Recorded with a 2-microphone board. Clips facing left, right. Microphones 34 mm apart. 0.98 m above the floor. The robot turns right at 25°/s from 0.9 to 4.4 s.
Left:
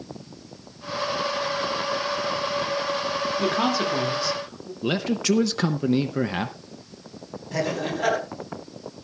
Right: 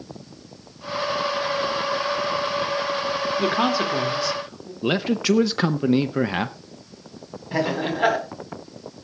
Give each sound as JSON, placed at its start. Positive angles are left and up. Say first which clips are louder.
{"t": 3.4, "sound": "a man speaking", "louder": "right 2 dB", "side_deg": -20, "distance_m": 2.5}
{"t": 4.8, "sound": "a man speaking", "louder": "right 3 dB", "side_deg": -15, "distance_m": 0.6}
{"t": 7.5, "sound": "laughter", "louder": "right 3 dB", "side_deg": -25, "distance_m": 4.0}